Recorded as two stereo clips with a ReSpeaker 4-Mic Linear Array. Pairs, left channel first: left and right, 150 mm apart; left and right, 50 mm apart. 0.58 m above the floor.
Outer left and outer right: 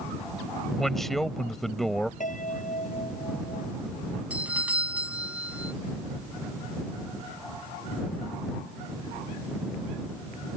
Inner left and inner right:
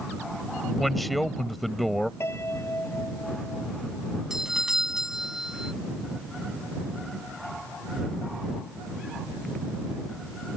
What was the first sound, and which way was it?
A man speaking, centre (ahead or behind).